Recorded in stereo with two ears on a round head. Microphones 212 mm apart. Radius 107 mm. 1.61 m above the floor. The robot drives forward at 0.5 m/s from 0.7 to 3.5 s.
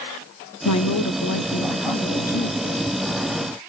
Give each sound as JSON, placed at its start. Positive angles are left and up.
{"t": 0.7, "sound": "a woman speaking", "side_deg": 80, "distance_m": 0.6}